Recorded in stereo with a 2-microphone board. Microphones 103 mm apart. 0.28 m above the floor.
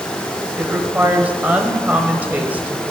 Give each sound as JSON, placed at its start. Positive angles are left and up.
{"t": 0.6, "sound": "a woman speaking", "side_deg": -15, "distance_m": 1.3}